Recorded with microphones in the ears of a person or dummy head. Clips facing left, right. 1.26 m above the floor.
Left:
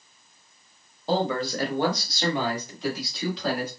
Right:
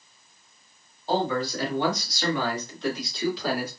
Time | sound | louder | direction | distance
1.1 | a man speaking | even | 65° left (ahead or behind) | 1.4 m